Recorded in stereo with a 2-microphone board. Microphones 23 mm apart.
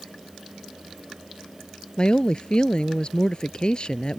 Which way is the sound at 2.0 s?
40° left (ahead or behind).